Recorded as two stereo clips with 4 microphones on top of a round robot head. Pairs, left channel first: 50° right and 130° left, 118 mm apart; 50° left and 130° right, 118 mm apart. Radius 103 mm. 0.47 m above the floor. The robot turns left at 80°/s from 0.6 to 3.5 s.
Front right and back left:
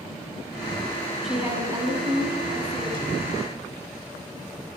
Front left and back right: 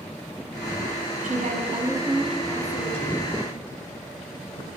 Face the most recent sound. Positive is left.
turn(degrees=40)